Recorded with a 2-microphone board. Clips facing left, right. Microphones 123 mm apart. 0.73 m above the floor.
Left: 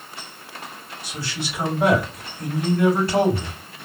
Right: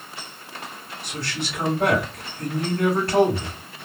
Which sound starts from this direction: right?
A man speaking, at 1.0 s.